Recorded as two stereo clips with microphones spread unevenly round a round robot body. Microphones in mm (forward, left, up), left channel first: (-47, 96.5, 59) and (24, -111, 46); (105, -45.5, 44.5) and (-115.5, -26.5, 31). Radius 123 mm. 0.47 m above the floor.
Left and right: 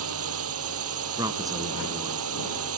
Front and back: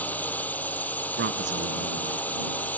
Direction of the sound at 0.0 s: 90° right.